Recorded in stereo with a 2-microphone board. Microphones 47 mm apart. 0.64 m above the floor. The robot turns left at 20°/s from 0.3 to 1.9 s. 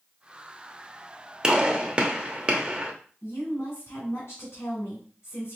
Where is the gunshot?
15° right (ahead or behind), 0.8 m; by 2.9 s 25° right (ahead or behind), 0.8 m.